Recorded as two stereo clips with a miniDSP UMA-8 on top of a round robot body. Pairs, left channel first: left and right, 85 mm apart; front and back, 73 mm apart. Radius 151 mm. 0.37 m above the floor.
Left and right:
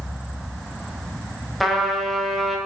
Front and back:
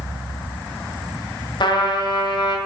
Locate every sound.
1.6 s a trumpet: straight ahead, 2 m